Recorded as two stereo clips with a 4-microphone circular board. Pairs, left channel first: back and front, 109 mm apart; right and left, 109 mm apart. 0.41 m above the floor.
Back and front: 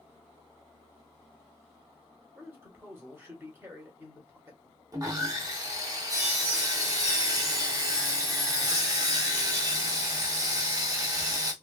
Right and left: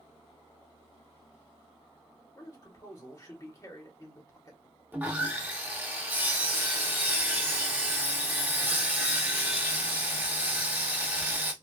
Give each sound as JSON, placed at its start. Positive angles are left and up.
{"t": 2.4, "sound": "a man speaking", "azimuth_deg": -55, "distance_m": 1.3}
{"t": 4.9, "sound": "sawing", "azimuth_deg": 25, "distance_m": 0.7}